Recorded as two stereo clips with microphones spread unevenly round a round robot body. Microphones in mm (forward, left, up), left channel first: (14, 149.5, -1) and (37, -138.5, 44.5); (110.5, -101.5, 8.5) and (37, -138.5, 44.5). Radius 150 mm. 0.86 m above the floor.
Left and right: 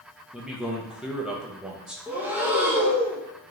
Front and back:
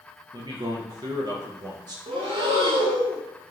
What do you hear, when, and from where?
0.3 s a man speaking: 170° left, 0.5 m
2.1 s breathing: 175° right, 0.5 m